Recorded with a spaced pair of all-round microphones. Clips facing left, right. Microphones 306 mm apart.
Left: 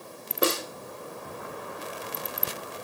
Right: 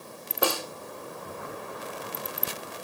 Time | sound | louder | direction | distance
0.4 | a snare drum | left 2 dB | 25° left (ahead or behind) | 2.0 m